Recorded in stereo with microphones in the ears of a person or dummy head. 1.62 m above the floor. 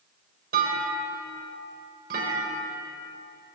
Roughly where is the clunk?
Right.